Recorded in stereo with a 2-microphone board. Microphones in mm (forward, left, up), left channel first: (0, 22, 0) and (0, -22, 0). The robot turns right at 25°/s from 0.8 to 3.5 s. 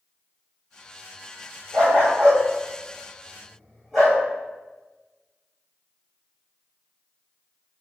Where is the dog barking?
40° right (ahead or behind), 1.9 m; by 4.2 s centre (ahead or behind), 1.9 m.